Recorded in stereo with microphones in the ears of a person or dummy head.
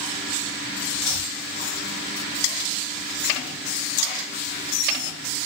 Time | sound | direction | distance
1.0 | chopping | 80° left | 1.3 m